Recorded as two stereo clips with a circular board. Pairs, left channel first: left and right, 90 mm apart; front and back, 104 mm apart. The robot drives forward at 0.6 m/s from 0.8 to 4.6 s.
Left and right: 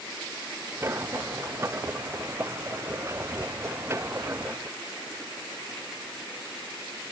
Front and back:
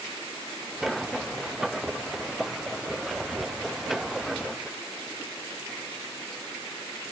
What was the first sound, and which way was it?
Only background noise.